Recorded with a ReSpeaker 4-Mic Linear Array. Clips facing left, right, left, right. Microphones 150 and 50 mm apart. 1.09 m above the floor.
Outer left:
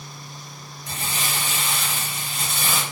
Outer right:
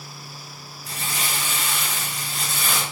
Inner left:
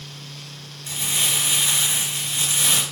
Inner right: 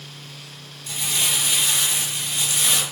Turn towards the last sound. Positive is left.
turn(degrees=25)  # may be behind; listen again after turning